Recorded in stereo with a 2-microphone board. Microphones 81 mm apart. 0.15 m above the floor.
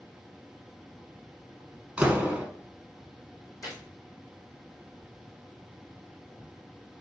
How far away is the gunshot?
About 2.5 m.